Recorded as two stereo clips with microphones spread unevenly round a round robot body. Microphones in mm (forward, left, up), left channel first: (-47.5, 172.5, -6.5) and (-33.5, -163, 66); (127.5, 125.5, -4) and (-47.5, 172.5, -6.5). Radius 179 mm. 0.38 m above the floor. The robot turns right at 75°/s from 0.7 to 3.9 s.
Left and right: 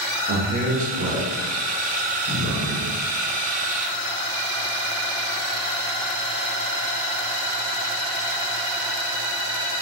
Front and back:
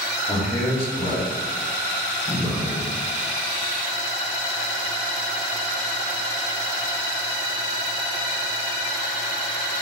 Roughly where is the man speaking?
Ahead right.